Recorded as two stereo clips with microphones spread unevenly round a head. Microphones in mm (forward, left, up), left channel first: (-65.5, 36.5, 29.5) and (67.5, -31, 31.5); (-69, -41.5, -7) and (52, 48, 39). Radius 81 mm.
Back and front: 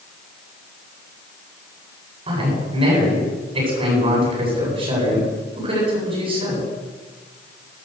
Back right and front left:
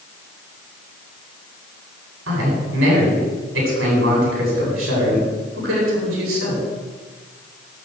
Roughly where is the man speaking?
Ahead left.